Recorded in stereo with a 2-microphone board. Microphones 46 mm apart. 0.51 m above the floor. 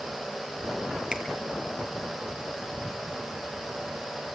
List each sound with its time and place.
1.1 s a finger snap: 15° right (ahead or behind), 4.5 m